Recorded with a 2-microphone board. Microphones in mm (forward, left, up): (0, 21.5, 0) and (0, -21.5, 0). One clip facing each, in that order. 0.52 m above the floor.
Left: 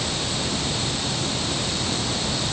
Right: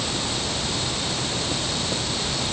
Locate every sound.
Only background noise.